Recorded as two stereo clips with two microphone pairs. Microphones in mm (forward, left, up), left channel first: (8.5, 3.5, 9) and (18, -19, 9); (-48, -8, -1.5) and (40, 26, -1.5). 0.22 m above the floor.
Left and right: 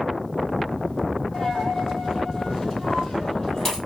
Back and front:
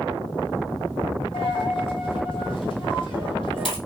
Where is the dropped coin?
Straight behind, 1.9 m.